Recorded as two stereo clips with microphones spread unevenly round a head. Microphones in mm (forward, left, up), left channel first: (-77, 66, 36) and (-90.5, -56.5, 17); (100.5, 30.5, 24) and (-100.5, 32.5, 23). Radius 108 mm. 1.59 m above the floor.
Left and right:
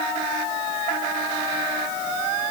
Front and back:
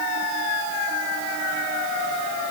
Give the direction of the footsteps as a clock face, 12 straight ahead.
No footsteps in this recording.